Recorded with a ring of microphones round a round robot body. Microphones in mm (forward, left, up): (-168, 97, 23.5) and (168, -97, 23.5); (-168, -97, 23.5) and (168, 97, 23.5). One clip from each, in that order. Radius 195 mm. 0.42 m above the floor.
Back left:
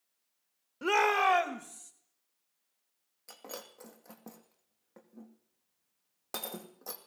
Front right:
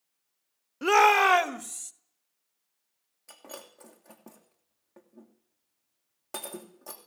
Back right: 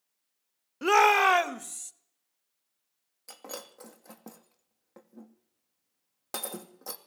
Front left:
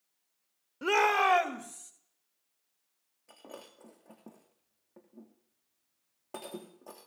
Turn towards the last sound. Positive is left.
turn(degrees=-130)